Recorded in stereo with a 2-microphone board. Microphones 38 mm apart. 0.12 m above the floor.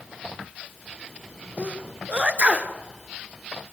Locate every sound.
1.6 s a sneeze: 40° right (ahead or behind), 1.7 m